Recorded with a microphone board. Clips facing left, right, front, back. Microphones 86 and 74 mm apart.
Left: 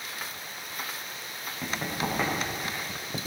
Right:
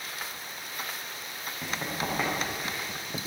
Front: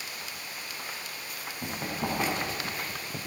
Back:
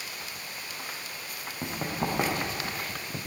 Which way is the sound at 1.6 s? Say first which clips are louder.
Left 2 dB, back 2 dB; straight behind.